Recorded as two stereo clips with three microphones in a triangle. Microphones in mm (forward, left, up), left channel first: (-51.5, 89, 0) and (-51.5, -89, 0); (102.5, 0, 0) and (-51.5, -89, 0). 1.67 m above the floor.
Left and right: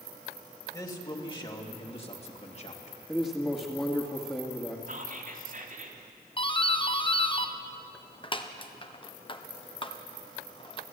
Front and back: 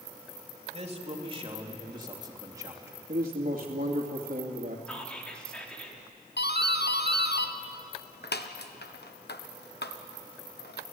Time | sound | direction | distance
0.7 | a man speaking | 160° left | 3 m
3.1 | a man speaking | 170° left | 2.5 m
4.9 | whispering | 55° right | 4 m
6.4 | a doorbell | 30° left | 1.2 m